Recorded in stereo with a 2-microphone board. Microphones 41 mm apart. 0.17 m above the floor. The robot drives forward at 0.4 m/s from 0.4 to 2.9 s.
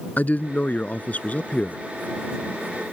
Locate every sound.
0.2 s a man speaking: 45° left (ahead or behind); by 1.8 s 35° left (ahead or behind)